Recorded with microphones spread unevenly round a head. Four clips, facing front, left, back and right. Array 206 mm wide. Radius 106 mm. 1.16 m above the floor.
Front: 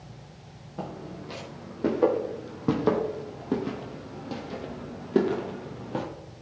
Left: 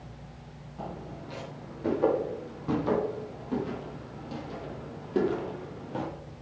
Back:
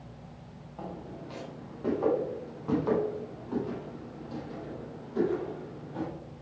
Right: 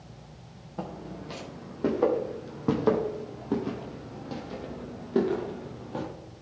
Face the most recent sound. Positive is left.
turn(degrees=-5)